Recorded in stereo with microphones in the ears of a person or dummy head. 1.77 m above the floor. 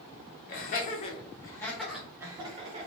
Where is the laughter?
50° left (ahead or behind), 1.0 m; by 2.9 s 30° right (ahead or behind), 0.9 m.